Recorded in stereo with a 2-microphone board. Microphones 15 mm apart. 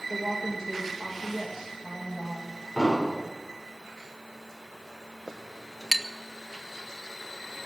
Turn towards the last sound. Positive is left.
turn(degrees=-20)  # may be behind; listen again after turning